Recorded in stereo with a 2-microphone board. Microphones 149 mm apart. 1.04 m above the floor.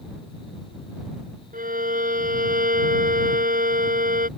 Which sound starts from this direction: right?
A violin, at 1.5 s.